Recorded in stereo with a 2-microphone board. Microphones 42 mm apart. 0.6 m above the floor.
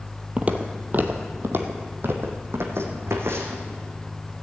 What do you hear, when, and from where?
0.4 s footsteps: 30° right (ahead or behind), 0.9 m; by 3.6 s 75° right (ahead or behind), 2.5 m